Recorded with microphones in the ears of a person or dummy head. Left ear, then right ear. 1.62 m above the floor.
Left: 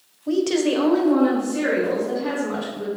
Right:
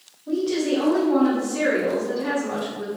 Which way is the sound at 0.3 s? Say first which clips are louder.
Left 3 dB; 75° left (ahead or behind).